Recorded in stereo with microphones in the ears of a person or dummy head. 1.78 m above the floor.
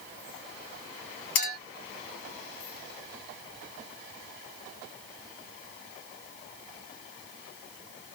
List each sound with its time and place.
1.4 s a clink: 55° left (ahead or behind), 1.4 m